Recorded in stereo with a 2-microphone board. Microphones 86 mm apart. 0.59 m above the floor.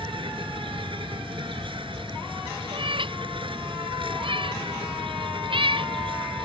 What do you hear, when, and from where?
0.0 s an insect: 80° right
2.7 s a cat meowing: 80° right